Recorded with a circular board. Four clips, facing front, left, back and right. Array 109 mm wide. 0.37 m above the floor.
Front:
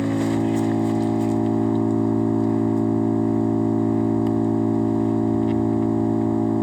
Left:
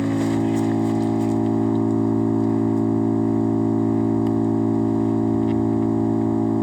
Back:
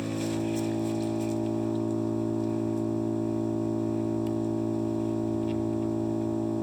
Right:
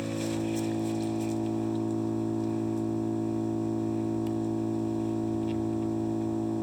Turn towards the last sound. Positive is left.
turn(degrees=45)